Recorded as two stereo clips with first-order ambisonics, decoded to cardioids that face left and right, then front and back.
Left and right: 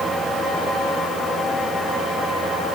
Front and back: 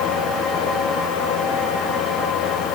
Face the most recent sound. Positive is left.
No sound to turn to.